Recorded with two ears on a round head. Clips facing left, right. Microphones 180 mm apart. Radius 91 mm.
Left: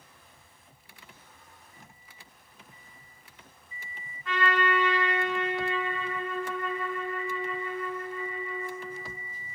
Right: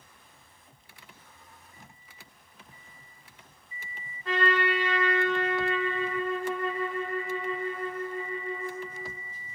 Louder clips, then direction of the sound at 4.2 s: Right 1 dB; 30° right (ahead or behind).